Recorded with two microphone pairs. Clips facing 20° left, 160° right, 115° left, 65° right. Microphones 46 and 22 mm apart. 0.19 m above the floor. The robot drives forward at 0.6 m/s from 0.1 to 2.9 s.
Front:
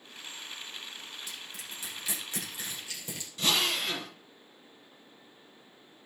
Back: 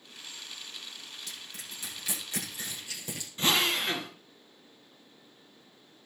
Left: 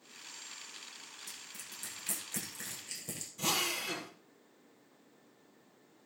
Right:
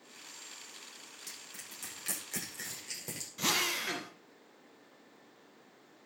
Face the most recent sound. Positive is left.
turn(degrees=-100)